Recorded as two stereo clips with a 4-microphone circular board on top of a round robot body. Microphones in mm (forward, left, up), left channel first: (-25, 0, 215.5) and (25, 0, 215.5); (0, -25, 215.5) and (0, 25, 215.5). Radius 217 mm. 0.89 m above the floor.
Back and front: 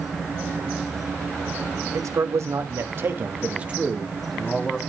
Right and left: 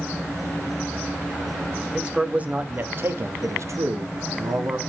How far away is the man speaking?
About 1.8 m.